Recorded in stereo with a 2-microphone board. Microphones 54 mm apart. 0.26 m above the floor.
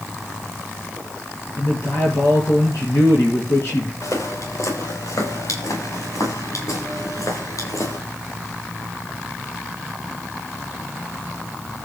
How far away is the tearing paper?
No tearing paper in this recording.